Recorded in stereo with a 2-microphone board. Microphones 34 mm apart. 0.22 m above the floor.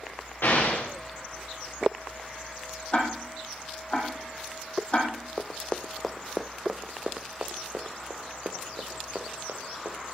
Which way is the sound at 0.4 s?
70° left (ahead or behind).